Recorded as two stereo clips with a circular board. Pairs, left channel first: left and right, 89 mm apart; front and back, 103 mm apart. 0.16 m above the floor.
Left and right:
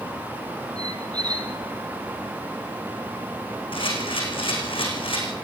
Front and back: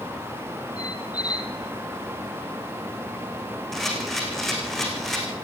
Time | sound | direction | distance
0.8 | a squeak | 50° right | 2.5 m
3.7 | a camera shutter | 85° left | 5 m